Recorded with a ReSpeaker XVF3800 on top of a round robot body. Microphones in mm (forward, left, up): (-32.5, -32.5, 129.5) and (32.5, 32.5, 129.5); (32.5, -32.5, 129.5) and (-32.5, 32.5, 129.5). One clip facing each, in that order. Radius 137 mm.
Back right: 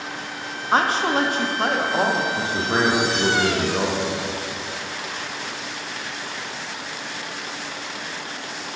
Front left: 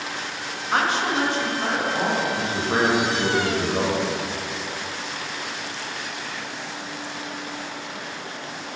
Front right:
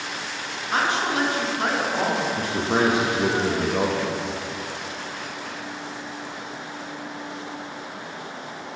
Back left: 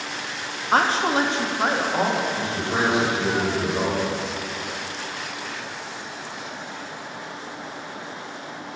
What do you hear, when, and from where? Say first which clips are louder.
0.7 s a woman speaking: back right 3 dB, back left 3 dB; 170° left, 0.9 m; by 2.3 s 145° right, 1.3 m
2.4 s a man speaking: back right 1 dB, front right 2 dB; 55° right, 1.2 m